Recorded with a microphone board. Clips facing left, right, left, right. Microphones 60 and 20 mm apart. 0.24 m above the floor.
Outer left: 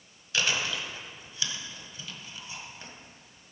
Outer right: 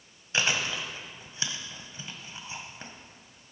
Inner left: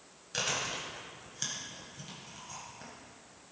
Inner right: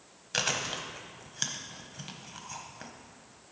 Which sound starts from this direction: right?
Chewing, at 0.3 s.